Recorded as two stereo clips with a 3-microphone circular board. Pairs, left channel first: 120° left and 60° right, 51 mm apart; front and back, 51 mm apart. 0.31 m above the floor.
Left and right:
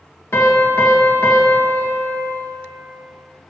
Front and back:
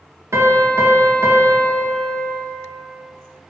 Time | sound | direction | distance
0.3 | a piano | 155° left | 1.2 m